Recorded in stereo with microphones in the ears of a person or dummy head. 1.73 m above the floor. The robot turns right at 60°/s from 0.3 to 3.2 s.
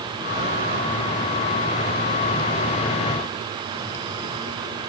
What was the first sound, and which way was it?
Only background noise.